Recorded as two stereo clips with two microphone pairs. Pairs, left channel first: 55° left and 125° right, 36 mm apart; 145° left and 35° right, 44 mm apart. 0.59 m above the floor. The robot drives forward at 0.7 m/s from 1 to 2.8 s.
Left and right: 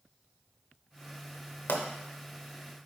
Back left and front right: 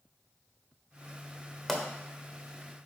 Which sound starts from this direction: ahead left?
A pop, at 1.7 s.